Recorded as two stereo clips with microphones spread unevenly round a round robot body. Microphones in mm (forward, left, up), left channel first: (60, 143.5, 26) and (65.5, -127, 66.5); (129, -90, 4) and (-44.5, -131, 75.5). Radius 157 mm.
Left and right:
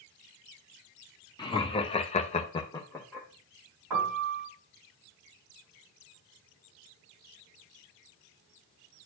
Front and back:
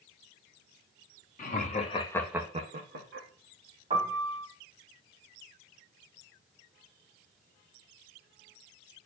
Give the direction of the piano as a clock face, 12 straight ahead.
4 o'clock.